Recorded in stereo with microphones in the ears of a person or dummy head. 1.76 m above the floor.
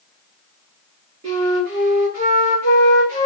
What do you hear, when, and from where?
1.2 s a flute: 45° right (ahead or behind), 2.5 m